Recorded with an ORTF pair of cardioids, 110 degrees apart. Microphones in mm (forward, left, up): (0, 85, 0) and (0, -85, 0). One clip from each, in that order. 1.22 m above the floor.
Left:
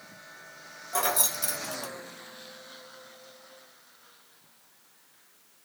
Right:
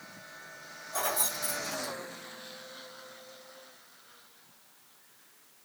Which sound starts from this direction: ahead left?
Keys jangling, at 0.9 s.